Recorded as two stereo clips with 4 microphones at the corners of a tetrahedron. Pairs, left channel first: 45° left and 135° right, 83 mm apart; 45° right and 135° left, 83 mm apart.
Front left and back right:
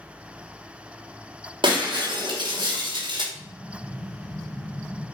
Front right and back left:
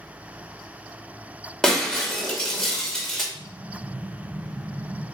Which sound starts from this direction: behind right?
Breaking glass, at 1.6 s.